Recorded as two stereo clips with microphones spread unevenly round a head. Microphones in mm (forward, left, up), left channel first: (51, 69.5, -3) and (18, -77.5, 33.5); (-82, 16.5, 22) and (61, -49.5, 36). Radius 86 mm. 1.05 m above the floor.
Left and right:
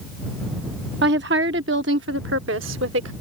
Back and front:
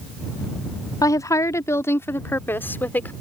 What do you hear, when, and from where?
1.0 s a woman speaking: 135° right; by 3.1 s 125° right